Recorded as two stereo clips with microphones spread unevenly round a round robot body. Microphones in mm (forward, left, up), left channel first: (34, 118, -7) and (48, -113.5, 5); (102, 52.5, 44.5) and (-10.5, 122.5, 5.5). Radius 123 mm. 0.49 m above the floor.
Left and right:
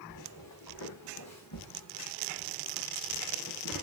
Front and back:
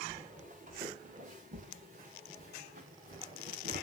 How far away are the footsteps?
About 5 m.